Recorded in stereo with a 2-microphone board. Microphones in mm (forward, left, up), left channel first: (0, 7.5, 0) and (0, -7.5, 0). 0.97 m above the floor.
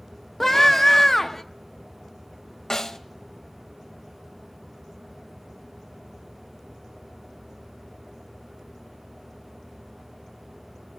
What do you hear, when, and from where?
0.4 s a scream: 10° left (ahead or behind), 0.6 m
2.7 s a snare drum: 40° left (ahead or behind), 0.7 m